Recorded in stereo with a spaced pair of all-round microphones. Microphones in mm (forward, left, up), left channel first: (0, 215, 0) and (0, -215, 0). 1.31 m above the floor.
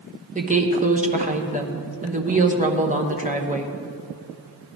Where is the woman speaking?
15° right (ahead or behind), 1.0 m.